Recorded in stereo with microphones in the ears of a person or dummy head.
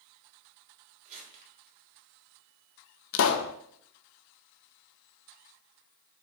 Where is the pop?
70° left (ahead or behind), 0.7 m.